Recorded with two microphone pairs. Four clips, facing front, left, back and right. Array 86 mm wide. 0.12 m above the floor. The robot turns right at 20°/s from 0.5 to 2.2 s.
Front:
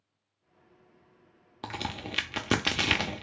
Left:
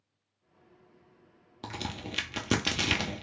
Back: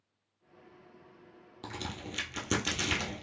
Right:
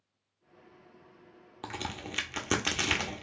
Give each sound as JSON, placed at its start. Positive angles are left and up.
{"t": 1.6, "sound": "a crack", "azimuth_deg": -25, "distance_m": 0.5}